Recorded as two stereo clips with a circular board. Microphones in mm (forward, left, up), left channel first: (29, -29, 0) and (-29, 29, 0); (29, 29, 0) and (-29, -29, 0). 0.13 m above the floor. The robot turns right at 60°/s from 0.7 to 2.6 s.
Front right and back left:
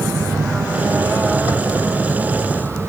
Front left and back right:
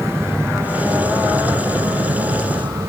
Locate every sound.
0.0 s an aircraft: 135° left; by 2.9 s 110° right